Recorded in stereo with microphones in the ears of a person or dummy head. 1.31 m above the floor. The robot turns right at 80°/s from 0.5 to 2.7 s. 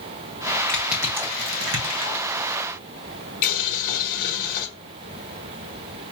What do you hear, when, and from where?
0.7 s crushing: 15° left (ahead or behind), 0.9 m; by 2.2 s 70° right (ahead or behind), 0.9 m
3.4 s boiling: 50° left (ahead or behind), 1.2 m